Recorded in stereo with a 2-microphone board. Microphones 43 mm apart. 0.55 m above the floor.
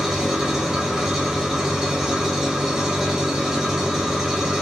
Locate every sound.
0.0 s an engine running: 10° right (ahead or behind), 1.7 m